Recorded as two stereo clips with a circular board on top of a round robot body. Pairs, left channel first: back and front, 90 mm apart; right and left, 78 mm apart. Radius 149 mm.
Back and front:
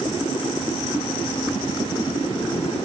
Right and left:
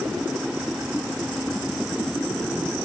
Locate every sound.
Only background noise.